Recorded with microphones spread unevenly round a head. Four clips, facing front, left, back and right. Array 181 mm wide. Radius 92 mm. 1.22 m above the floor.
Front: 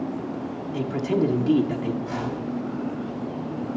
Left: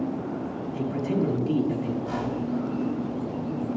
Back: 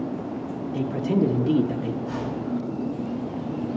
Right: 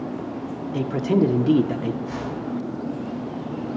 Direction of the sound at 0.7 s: 70° right.